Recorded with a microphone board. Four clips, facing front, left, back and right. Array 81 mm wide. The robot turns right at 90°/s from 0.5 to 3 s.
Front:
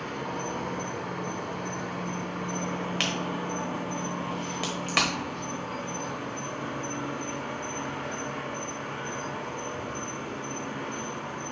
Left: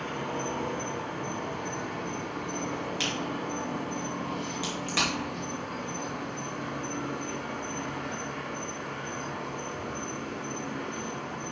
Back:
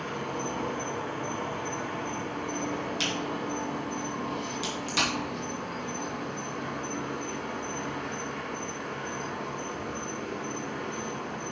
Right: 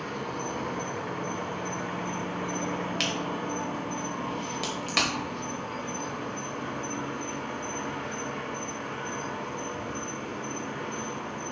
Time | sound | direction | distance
0.0 | an insect | 100° left | 1.9 m
3.0 | a crack | 15° right | 1.5 m